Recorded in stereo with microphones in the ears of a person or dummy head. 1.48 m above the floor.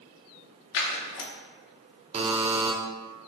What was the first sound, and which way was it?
Scissors, 50° left (ahead or behind).